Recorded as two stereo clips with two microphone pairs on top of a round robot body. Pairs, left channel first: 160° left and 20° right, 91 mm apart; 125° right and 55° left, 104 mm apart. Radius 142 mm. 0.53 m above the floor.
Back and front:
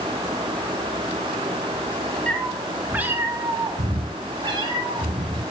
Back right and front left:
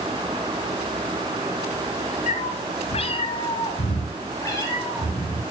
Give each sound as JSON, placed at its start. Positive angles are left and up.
{"t": 2.3, "sound": "a cat meowing", "azimuth_deg": -120, "distance_m": 1.0}